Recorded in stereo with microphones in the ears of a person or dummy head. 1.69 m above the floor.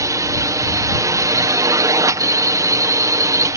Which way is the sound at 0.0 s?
15° right (ahead or behind).